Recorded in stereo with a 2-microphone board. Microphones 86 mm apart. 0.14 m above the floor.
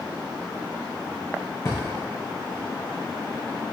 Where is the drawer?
35° left (ahead or behind), 2 m.